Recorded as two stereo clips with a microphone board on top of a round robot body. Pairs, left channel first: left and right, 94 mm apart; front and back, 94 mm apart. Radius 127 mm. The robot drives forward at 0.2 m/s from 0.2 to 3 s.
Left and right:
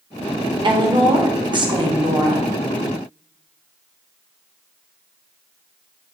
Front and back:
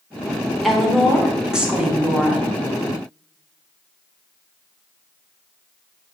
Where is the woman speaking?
85° right, 1.2 m; by 2.5 s 110° right, 1.2 m.